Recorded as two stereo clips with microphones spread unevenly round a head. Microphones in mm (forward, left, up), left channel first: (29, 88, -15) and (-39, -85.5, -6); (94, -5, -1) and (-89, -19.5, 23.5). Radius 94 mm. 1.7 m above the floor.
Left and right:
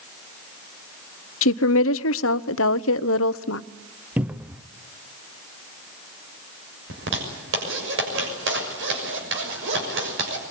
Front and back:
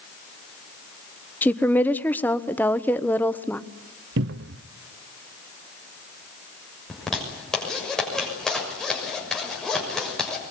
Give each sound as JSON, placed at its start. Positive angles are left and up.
{"t": 1.4, "sound": "a woman speaking", "azimuth_deg": 85, "distance_m": 0.8}
{"t": 4.2, "sound": "a cupboard door", "azimuth_deg": 170, "distance_m": 0.6}
{"t": 6.9, "sound": "a zipper", "azimuth_deg": -85, "distance_m": 6.5}